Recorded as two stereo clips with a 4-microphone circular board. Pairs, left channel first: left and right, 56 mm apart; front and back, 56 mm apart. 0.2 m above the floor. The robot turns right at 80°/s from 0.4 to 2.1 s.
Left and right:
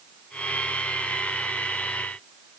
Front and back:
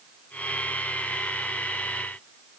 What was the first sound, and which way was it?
Only background noise.